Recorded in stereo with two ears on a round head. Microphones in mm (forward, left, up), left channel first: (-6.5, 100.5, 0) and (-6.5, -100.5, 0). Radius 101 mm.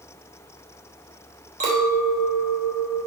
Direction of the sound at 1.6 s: 35° right (ahead or behind).